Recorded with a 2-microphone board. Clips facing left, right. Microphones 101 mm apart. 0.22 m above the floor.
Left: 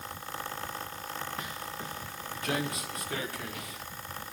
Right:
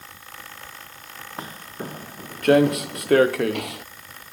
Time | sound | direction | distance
1.4 | footsteps | 30° right (ahead or behind) | ?